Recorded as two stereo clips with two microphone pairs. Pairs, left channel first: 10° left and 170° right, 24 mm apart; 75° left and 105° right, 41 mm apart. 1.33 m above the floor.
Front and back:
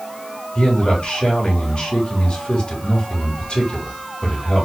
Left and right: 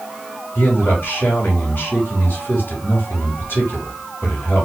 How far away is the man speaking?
About 3.5 m.